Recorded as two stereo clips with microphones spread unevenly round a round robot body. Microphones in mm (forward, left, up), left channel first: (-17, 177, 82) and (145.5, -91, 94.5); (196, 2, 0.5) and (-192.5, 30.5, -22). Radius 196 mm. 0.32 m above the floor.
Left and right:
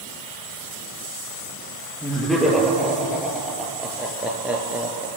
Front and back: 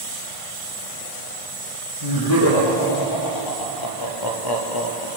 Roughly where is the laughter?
Ahead left.